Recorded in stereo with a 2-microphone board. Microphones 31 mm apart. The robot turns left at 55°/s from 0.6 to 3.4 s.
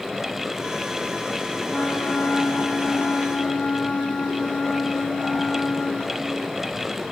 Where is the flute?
110° left, 2.5 m; by 6.4 s 15° left, 2.5 m.